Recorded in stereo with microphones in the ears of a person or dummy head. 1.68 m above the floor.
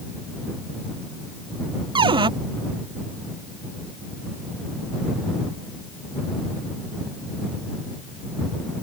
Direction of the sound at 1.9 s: 20° right (ahead or behind).